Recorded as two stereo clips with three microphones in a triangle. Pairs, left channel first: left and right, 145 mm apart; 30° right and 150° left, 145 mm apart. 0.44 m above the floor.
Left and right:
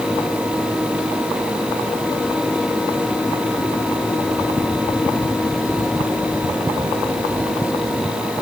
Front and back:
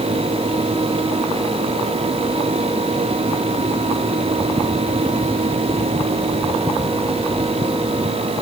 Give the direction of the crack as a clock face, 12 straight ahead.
No crack in this recording.